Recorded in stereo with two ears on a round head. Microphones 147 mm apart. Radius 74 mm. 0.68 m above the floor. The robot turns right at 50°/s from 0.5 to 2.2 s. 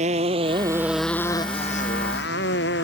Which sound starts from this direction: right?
A motorcycle, at 0.0 s.